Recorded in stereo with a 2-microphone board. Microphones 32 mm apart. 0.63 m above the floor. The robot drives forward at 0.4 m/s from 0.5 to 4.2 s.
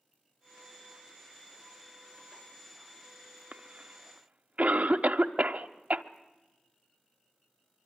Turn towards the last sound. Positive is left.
turn(degrees=-55)  # may be behind; listen again after turning